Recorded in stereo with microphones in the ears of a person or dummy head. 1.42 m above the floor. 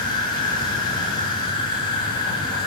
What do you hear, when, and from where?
0.0 s an insect: 25° left (ahead or behind), 1.1 m